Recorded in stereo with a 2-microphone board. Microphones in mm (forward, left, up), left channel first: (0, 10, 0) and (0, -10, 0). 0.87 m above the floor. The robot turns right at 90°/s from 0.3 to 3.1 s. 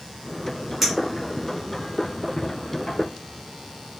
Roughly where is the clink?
Centre.